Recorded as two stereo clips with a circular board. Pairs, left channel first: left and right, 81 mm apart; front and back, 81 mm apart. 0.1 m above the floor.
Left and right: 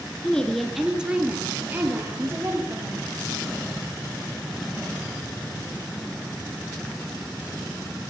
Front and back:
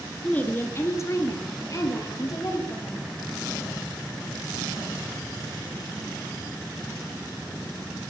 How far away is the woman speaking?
About 1.6 m.